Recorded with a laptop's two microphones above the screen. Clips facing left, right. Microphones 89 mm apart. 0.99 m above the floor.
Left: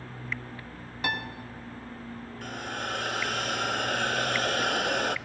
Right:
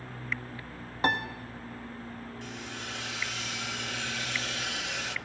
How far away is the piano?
About 1.5 m.